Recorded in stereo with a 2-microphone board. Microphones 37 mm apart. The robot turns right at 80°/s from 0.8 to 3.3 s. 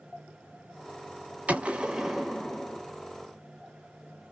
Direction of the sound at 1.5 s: 60° right.